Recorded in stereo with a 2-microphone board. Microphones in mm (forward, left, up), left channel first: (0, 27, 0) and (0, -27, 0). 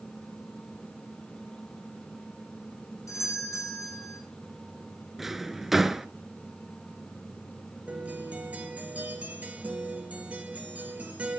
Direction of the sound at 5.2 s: 5° right (ahead or behind).